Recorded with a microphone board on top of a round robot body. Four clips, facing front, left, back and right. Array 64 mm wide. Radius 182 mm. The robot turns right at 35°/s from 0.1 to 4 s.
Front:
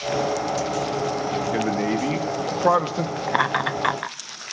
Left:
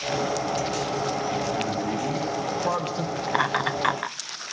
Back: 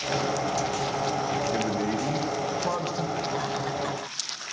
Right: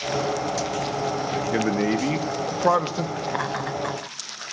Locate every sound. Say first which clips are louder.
1.5 s a man speaking: right 4 dB, front 4 dB; 70° right, 1.1 m; by 3.2 s 15° right, 1.1 m
3.3 s laughter: left 3 dB, front 7 dB; 15° left, 0.6 m; by 4.2 s 40° left, 0.6 m